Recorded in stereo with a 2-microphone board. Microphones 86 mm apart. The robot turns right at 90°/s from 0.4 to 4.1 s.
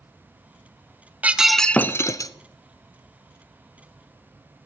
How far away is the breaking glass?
About 0.5 m.